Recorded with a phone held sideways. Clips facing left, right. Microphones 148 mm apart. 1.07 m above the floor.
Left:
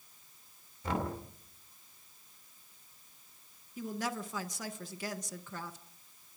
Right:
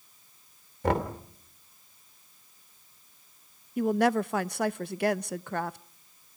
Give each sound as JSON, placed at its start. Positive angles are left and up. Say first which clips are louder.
{"t": 0.8, "sound": "knocking", "louder": "right 7 dB", "side_deg": -90, "distance_m": 2.5}
{"t": 3.8, "sound": "a woman speaking", "louder": "right 13 dB", "side_deg": -75, "distance_m": 0.6}